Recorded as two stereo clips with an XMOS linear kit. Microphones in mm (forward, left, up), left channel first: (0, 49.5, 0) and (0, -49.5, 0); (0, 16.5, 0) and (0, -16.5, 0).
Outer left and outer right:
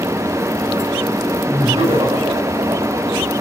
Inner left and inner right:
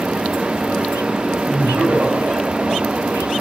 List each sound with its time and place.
1.5 s laughter: 75° right (ahead or behind), 6 m; by 3.3 s 80° right, 7.5 m